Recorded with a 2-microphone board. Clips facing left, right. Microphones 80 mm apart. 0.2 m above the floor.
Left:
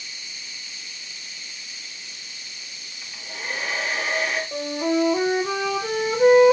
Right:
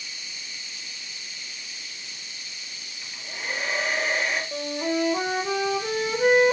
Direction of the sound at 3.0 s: 5° left (ahead or behind).